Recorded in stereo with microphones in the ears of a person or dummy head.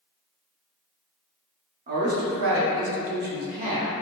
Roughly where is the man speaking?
Right.